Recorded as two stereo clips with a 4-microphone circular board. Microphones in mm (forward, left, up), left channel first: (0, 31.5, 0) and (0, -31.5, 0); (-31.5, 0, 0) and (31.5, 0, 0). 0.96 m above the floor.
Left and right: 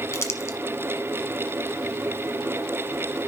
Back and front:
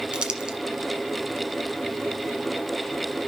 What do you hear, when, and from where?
0.1 s crumpling: 75° left, 1.2 m